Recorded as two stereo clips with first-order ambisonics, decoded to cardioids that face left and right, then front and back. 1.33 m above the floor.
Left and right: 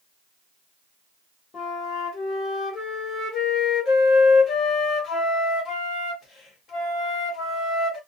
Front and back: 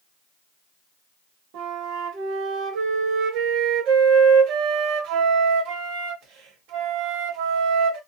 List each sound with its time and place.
1.5 s a flute: 150° left, 1.2 m